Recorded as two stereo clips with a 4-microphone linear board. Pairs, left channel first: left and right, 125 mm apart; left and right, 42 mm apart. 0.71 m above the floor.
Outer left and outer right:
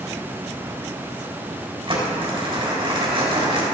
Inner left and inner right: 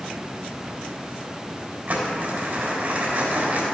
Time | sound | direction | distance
1.9 | crumpling | 45° right (ahead or behind) | 3.5 m